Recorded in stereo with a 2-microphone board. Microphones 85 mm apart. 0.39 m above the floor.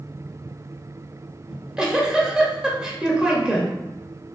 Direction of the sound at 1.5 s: 10° right (ahead or behind).